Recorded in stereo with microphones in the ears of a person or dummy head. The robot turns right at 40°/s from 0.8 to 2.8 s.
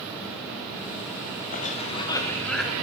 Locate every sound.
1.5 s a cough: 130° left, 0.6 m; by 2.7 s straight behind, 0.6 m